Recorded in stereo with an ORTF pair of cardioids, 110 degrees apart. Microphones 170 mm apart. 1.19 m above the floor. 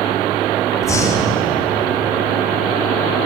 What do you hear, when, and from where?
0.8 s breathing: 20° left, 4.5 m